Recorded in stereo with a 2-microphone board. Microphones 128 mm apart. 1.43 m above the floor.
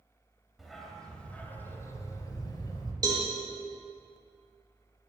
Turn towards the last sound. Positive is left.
turn(degrees=-30)  # may be behind; listen again after turning